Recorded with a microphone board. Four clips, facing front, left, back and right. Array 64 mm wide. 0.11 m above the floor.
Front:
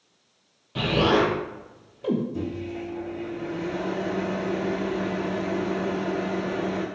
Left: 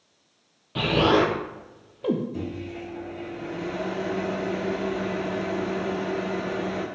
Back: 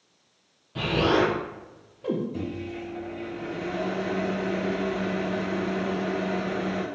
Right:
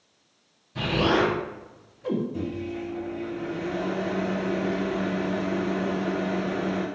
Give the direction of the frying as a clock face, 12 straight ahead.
No frying in this recording.